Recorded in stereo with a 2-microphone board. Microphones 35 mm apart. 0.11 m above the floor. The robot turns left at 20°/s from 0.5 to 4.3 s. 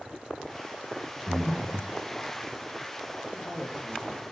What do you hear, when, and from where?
1.3 s breathing: 45° left (ahead or behind), 5 m; by 2.0 s 30° left (ahead or behind), 5 m
3.3 s a man speaking: 45° left (ahead or behind), 7 m; by 4.2 s 25° left (ahead or behind), 7 m